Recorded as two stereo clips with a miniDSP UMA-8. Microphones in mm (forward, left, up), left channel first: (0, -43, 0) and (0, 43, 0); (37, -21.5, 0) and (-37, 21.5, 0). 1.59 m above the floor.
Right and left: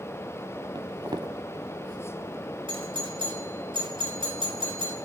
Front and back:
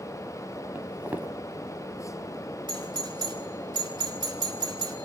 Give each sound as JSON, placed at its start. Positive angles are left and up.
{"t": 0.8, "sound": "footsteps", "azimuth_deg": 85, "distance_m": 2.5}
{"t": 2.7, "sound": "a doorbell", "azimuth_deg": 115, "distance_m": 4.5}